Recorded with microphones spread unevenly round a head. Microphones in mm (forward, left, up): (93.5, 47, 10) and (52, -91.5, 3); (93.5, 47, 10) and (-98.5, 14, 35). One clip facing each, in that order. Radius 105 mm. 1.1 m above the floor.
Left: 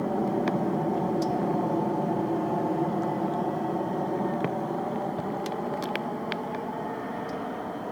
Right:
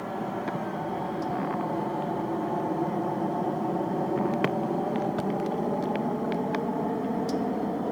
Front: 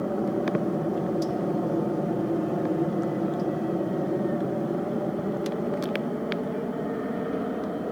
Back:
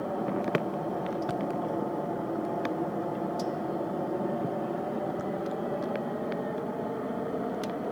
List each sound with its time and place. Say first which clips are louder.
0.0 s an aircraft: left 5 dB, front 4 dB; 40° left; by 7.9 s 60° right